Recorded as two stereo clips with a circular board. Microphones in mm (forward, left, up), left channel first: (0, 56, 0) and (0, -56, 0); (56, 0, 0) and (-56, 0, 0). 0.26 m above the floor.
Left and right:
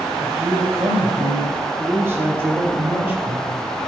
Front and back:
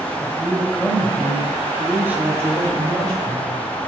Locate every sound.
0.2 s a woman speaking: 40° right, 1.6 m; by 3.7 s 155° right, 2 m